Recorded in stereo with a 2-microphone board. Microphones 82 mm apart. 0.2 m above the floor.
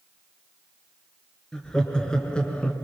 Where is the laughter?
10° left (ahead or behind), 3 m; by 2.8 s 15° left (ahead or behind), 1.8 m.